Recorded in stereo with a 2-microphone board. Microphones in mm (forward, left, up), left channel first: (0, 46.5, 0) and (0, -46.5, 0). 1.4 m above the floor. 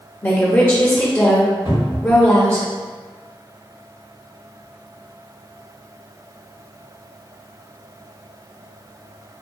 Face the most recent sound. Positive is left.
turn(degrees=-55)  # may be behind; listen again after turning